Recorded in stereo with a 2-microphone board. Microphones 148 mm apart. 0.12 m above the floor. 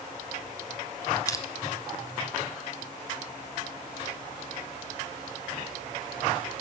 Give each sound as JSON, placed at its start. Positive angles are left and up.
{"t": 1.3, "sound": "crushing", "side_deg": 25, "distance_m": 0.6}